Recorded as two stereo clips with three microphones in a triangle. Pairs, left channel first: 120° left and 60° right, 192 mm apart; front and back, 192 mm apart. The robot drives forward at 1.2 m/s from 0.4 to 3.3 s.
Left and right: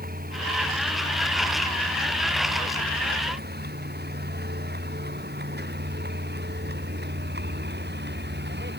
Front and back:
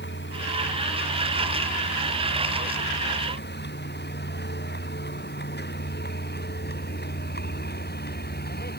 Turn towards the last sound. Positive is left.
turn(degrees=-35)